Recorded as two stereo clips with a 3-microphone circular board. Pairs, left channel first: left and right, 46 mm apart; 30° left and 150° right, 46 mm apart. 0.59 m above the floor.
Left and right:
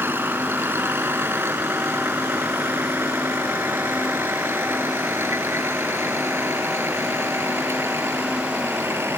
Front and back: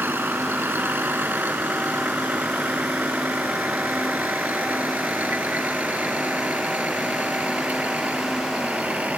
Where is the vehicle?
115° right; by 9.2 s 95° right.